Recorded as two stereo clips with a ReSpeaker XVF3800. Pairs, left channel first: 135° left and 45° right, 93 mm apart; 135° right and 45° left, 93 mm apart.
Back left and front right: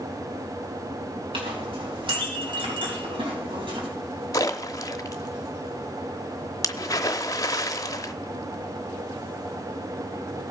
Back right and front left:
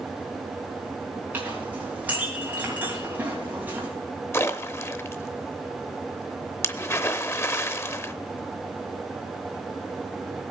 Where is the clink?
25° right, 3.5 m.